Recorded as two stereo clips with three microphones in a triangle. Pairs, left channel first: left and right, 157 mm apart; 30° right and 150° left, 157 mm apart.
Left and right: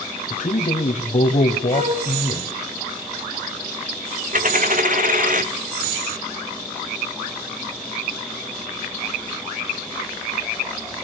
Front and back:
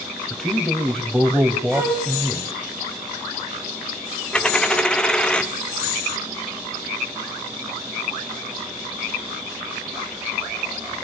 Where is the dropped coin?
115° right, 1.6 m.